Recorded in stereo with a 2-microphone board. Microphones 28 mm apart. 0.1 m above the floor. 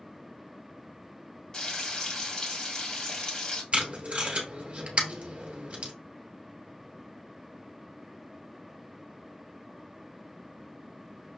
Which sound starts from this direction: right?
Tape being pulled, at 3.7 s.